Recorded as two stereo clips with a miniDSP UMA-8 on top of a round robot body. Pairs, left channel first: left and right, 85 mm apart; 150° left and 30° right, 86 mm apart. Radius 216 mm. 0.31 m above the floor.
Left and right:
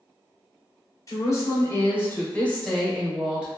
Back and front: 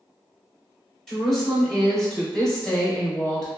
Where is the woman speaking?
65° left, 1.6 m; by 3.5 s 145° right, 1.3 m.